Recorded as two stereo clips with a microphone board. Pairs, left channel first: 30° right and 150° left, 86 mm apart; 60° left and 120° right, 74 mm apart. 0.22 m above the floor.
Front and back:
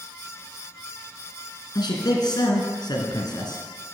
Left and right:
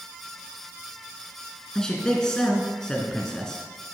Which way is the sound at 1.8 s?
25° right.